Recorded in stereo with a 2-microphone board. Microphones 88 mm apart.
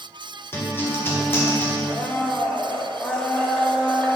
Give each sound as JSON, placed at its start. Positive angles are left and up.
{"t": 0.5, "sound": "a guitar", "side_deg": 25, "distance_m": 1.4}
{"t": 1.9, "sound": "a blender", "side_deg": 15, "distance_m": 1.0}